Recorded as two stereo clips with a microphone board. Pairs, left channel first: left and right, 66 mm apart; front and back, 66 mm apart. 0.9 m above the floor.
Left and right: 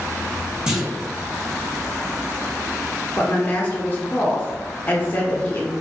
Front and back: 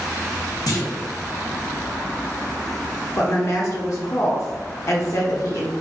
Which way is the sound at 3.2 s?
30° left.